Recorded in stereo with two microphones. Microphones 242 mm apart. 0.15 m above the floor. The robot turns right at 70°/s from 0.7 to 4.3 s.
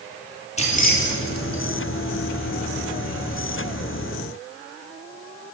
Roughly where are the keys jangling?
Left.